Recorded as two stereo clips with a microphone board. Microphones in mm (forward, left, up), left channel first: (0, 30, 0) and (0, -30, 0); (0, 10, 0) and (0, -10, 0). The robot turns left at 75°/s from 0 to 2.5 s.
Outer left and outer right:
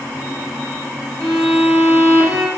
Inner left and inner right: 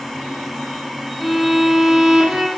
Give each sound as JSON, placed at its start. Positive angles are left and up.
{"t": 1.2, "sound": "a violin", "azimuth_deg": 30, "distance_m": 6.5}